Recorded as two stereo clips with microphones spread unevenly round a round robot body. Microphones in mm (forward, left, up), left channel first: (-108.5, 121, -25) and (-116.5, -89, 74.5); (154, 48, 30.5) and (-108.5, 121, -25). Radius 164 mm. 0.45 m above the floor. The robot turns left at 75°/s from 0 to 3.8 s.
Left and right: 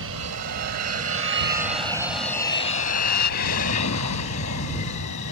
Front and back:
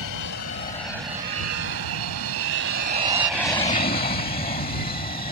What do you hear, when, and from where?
0.0 s an aircraft: 35° right; by 5.3 s 45° left